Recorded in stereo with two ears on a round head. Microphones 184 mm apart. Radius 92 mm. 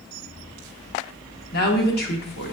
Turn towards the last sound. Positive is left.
turn(degrees=50)  # may be behind; listen again after turning